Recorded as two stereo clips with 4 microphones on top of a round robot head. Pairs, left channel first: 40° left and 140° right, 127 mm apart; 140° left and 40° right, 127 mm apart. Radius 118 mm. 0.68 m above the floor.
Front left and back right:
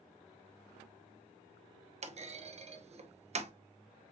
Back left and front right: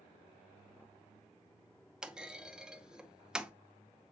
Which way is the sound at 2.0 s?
125° right.